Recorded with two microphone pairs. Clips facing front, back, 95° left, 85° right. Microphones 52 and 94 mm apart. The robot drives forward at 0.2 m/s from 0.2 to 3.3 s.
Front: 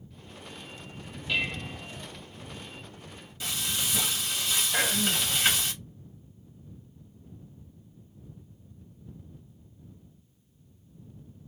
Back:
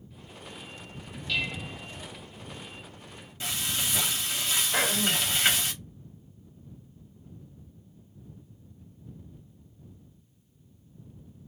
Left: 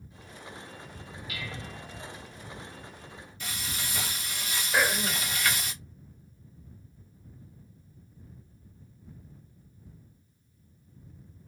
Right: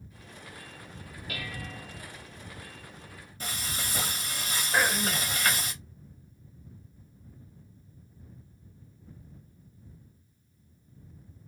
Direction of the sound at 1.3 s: 65° right.